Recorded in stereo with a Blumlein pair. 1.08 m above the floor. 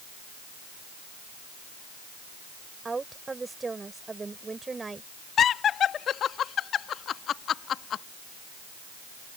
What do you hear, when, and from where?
2.9 s a woman speaking: 10° right
5.4 s laughter: 25° left